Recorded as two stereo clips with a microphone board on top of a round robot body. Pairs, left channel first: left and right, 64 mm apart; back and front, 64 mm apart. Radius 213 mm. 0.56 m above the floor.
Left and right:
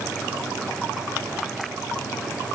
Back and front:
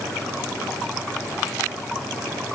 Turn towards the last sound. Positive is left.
No sound to turn to.